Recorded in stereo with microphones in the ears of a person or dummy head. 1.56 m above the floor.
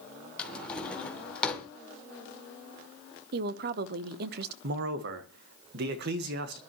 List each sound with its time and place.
0.4 s a drawer: 5° left (ahead or behind), 2.5 m
3.3 s a woman speaking: 60° right (ahead or behind), 1.0 m
4.6 s a man speaking: 60° right (ahead or behind), 1.6 m